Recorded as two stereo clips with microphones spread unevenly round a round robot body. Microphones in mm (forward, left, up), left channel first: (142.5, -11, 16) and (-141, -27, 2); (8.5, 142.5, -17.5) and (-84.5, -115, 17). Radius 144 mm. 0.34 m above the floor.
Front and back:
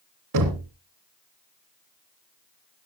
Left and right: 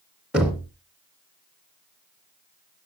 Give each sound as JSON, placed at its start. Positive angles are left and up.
{"t": 0.3, "sound": "knocking", "azimuth_deg": 160, "distance_m": 2.5}